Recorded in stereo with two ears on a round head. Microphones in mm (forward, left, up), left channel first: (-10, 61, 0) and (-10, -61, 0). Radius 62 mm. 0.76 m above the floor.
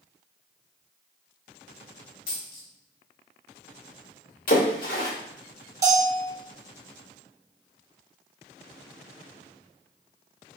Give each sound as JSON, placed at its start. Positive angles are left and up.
{"t": 2.3, "sound": "a dropped coin", "side_deg": 70, "distance_m": 1.2}
{"t": 4.5, "sound": "a splash", "side_deg": 70, "distance_m": 1.8}
{"t": 5.8, "sound": "a bell", "side_deg": -25, "distance_m": 0.9}